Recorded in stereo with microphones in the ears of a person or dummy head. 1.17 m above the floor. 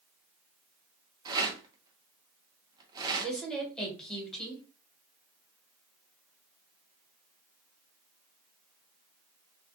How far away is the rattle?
About 0.5 m.